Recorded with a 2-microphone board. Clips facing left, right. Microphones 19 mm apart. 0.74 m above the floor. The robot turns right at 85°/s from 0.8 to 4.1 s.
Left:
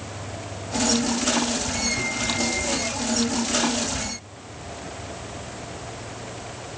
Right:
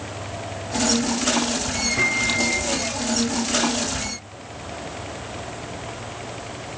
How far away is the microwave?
About 1.2 m.